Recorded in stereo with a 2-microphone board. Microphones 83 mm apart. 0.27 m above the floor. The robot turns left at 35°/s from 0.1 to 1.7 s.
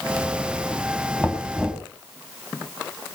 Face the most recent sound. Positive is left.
turn(degrees=-5)  # may be behind; listen again after turning